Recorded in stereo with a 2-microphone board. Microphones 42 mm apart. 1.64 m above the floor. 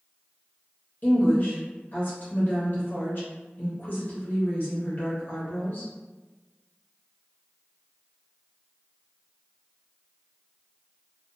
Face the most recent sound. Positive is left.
turn(degrees=50)  # may be behind; listen again after turning